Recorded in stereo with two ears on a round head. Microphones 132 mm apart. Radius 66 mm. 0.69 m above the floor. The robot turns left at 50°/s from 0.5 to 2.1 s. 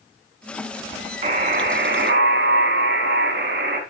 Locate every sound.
1.2 s a buzzer: 40° right, 2.5 m; by 3.8 s 85° right, 2.5 m